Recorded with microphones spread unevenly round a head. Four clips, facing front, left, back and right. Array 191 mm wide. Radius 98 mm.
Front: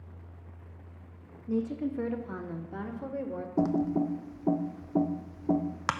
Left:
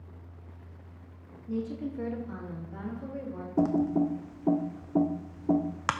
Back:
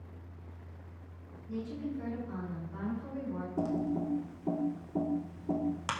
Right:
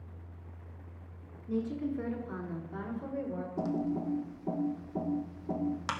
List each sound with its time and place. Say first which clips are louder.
1.5 s a woman speaking: even, front 7 dB; 25° left, 1.5 m; by 3.5 s 5° right, 2 m
3.6 s typing on a keyboard: left 9 dB, front 6 dB; 60° left, 0.7 m